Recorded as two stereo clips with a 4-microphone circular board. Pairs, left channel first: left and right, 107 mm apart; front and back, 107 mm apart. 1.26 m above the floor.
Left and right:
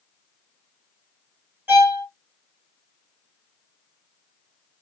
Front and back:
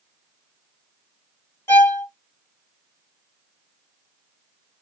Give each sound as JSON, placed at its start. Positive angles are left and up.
{"t": 1.7, "sound": "a violin", "azimuth_deg": -40, "distance_m": 1.1}